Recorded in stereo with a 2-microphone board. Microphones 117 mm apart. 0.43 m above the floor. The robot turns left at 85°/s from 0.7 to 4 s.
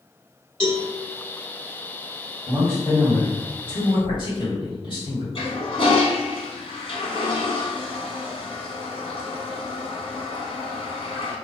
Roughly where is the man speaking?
Behind.